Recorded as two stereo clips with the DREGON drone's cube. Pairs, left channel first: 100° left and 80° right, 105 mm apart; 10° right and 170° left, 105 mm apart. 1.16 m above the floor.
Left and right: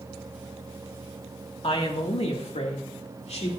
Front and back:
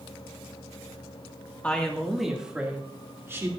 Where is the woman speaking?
70° left, 1.9 m; by 3.5 s 105° left, 2.5 m.